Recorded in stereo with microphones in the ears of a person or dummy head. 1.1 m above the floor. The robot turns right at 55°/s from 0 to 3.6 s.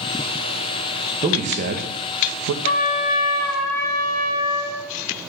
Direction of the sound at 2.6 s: 60° left.